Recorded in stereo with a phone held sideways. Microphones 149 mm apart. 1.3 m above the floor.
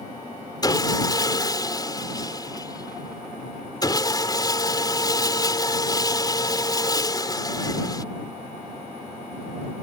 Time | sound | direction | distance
0.6 | sawing | 25° left (ahead or behind) | ?